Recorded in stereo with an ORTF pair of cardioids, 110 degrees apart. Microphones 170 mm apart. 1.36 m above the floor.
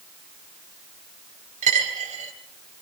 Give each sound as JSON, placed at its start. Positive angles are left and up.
{"t": 1.6, "sound": "a dropped coin", "azimuth_deg": -45, "distance_m": 3.5}